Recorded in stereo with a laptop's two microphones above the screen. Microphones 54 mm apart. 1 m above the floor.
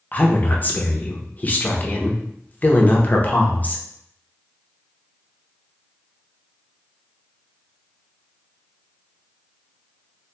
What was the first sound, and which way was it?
A woman speaking, 30° left (ahead or behind).